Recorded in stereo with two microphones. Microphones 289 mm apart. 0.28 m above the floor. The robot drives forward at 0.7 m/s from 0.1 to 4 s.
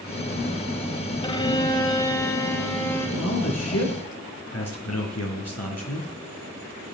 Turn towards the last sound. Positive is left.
turn(degrees=65)  # may be behind; listen again after turning